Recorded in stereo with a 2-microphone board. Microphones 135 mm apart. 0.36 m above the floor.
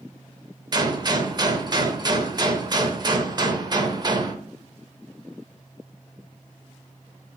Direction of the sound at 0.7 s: 30° right (ahead or behind).